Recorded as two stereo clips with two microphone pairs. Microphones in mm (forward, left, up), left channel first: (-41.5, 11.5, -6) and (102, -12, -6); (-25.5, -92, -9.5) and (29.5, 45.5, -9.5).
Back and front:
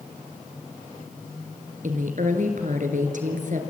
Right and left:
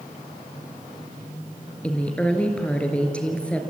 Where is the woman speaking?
30° right, 3.5 m.